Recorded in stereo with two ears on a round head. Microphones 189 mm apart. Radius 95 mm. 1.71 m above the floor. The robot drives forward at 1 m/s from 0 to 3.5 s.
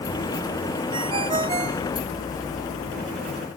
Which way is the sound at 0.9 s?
25° right (ahead or behind).